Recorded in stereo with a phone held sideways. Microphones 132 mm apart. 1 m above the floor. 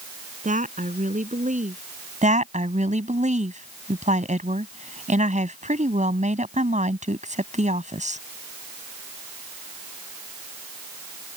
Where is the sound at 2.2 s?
65° right (ahead or behind).